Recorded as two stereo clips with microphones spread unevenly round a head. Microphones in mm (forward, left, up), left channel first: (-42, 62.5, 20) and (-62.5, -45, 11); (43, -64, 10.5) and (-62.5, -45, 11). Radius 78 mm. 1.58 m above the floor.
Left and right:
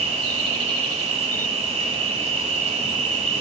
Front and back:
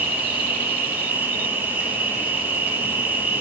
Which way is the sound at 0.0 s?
120° right.